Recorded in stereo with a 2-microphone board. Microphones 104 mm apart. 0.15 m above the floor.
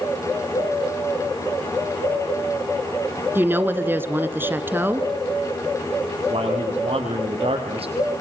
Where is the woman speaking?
20° right (ahead or behind), 1.9 m.